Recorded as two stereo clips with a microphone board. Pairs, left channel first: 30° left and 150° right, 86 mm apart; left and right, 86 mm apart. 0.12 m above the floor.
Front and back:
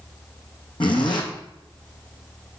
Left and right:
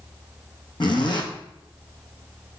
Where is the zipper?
55° left, 1.7 m.